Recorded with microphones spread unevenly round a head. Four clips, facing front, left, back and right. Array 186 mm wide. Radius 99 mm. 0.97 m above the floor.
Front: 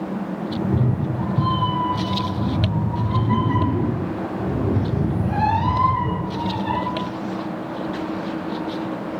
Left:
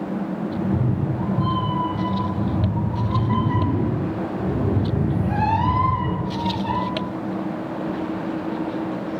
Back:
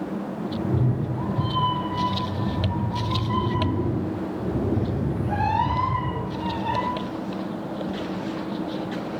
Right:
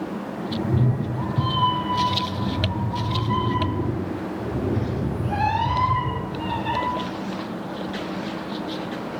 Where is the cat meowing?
35° right, 3 m; by 6.8 s 45° left, 4.5 m.